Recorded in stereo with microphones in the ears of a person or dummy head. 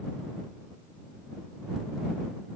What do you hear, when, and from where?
Only background noise.